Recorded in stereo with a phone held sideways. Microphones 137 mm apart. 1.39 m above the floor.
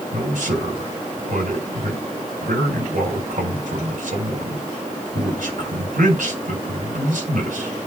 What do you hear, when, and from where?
0.1 s a man speaking: 75° right (ahead or behind), 5 m